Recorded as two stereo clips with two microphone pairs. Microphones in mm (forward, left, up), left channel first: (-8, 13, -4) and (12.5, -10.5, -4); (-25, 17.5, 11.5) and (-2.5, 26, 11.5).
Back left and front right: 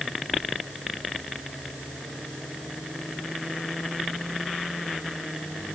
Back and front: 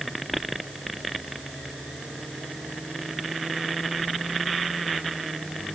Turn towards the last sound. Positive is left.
No sound to turn to.